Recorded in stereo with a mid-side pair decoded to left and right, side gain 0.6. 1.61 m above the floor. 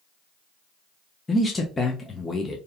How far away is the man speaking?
About 0.5 m.